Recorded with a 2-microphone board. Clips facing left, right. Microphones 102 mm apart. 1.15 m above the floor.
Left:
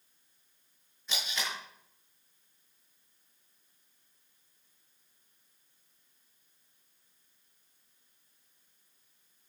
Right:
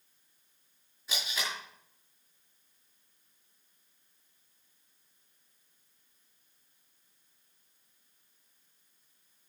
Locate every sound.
1.1 s tape being pulled: 5° right (ahead or behind), 7 m